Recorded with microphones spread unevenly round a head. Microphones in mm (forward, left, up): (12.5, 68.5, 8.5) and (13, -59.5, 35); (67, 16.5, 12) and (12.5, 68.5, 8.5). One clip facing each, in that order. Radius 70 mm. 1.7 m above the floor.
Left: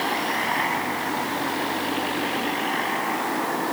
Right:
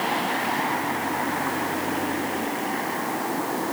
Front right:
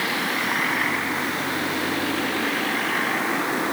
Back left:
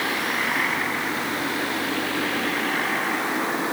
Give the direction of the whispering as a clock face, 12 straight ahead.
No whispering in this recording.